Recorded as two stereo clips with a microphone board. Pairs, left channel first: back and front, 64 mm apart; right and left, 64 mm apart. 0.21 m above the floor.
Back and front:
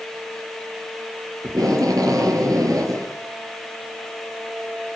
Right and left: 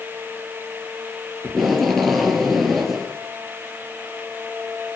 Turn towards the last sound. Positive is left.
turn(degrees=-5)